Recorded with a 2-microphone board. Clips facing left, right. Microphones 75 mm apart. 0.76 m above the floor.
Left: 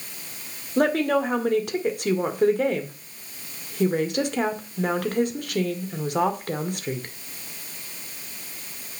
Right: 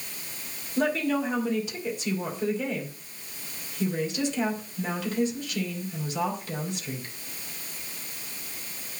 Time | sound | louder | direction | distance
0.8 | a woman speaking | left 5 dB | 55° left (ahead or behind) | 2 m